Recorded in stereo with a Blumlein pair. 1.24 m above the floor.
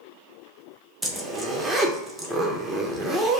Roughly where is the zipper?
Ahead.